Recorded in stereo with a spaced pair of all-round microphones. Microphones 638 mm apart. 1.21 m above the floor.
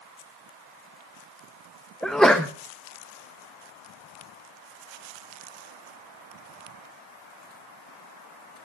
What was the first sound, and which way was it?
A sneeze, centre (ahead or behind).